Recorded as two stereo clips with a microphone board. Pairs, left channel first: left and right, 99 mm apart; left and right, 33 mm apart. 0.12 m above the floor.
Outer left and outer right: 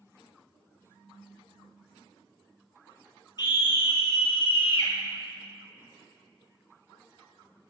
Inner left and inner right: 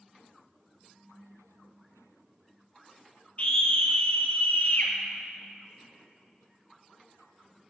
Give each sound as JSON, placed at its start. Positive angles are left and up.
{"t": 3.4, "sound": "a scream", "side_deg": 45, "distance_m": 3.5}